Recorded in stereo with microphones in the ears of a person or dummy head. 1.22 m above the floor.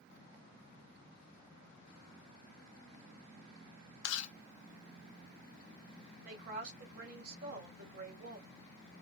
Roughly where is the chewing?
Left.